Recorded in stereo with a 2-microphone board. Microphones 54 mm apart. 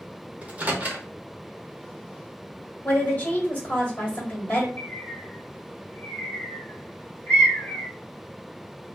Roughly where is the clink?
I don't hear a clink.